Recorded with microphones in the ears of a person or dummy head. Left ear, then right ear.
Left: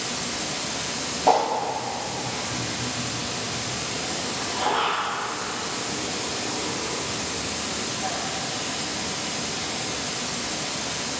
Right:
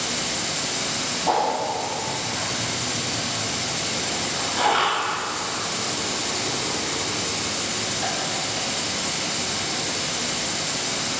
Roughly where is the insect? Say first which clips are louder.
Right 3 dB; right.